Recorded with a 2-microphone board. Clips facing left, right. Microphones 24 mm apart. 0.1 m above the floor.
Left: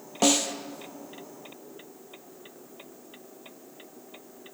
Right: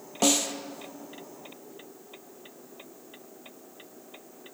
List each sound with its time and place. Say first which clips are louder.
0.2 s a snare drum: left 1 dB; centre (ahead or behind), 0.8 m